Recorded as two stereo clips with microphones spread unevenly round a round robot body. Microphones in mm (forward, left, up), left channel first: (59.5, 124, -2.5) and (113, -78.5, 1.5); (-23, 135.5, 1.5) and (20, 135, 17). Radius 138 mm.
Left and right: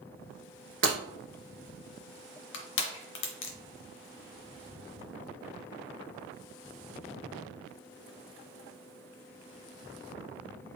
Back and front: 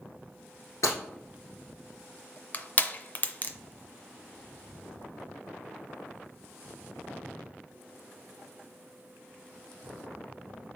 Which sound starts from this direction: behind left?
Crushing, at 2.5 s.